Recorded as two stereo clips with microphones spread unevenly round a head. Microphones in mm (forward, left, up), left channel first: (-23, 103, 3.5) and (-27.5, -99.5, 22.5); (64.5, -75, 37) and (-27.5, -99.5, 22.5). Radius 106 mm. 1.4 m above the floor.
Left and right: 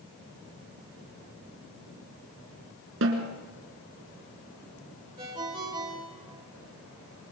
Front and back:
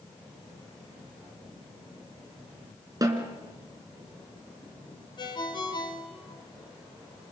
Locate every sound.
3.0 s a snare drum: 110° right, 3.5 m
5.2 s a ringtone: 20° right, 4 m